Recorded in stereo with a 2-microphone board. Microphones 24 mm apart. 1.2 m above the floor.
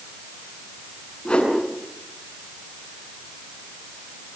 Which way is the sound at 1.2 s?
40° left (ahead or behind).